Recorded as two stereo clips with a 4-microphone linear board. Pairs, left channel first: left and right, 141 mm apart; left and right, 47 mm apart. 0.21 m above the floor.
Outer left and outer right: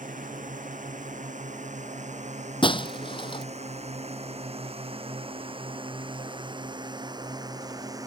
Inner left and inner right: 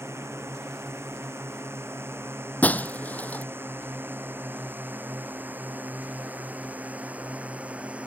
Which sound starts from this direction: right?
A drone, at 0.0 s.